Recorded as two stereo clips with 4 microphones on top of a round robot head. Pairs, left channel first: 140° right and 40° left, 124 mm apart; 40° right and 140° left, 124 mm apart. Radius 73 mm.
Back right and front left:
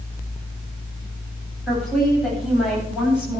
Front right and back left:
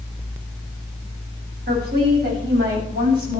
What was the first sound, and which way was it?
A woman speaking, 135° left.